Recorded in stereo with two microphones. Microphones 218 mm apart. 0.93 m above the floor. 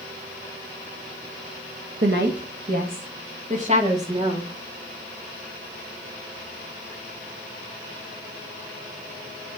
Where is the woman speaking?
60° right (ahead or behind), 0.8 m; by 4.5 s 25° right (ahead or behind), 1.7 m.